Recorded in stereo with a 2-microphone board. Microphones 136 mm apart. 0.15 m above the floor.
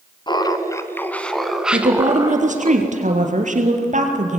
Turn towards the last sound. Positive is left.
turn(degrees=-65)  # may be behind; listen again after turning